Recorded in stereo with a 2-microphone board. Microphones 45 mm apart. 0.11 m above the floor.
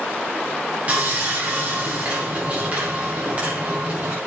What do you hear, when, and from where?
0.9 s sawing: 30° right (ahead or behind), 4.5 m